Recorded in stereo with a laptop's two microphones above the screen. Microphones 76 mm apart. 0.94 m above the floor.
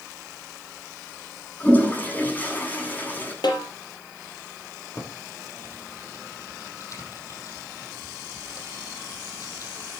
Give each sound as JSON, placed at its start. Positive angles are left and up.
{"t": 1.6, "sound": "a toilet flushing", "side_deg": 25, "distance_m": 8.0}
{"t": 3.4, "sound": "a snare drum", "side_deg": 75, "distance_m": 4.5}
{"t": 5.0, "sound": "typing on a keyboard", "side_deg": 45, "distance_m": 5.5}